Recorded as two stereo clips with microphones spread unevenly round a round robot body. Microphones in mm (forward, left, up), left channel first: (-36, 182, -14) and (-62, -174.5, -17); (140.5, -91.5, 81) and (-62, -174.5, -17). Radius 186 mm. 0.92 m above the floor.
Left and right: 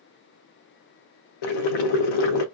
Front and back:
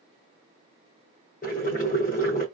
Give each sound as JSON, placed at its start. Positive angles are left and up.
{"t": 1.4, "sound": "boiling", "azimuth_deg": 75, "distance_m": 1.0}